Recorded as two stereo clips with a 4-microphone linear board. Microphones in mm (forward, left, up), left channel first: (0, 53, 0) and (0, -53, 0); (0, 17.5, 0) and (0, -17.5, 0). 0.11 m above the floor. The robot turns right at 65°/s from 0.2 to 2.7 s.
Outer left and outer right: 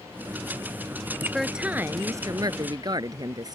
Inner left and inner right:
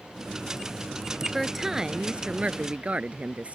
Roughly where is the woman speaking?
Behind.